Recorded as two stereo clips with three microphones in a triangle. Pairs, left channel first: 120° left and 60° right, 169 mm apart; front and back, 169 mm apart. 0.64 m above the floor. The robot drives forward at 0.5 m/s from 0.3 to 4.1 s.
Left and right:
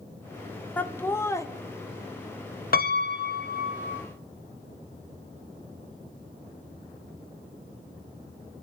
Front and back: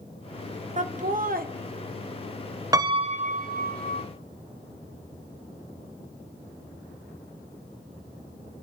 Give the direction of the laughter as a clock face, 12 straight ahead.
5 o'clock.